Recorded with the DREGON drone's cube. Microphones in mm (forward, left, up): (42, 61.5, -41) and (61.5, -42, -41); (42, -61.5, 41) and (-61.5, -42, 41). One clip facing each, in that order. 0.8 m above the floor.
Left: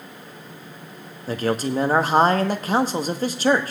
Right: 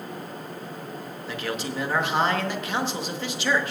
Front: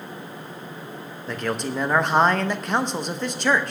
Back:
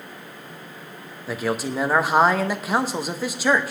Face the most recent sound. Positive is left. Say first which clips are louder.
# left 8 dB, back 2 dB
turn(degrees=90)